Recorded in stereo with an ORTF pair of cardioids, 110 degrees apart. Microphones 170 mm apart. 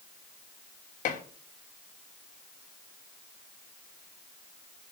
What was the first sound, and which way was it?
Dishes clattering, 50° left.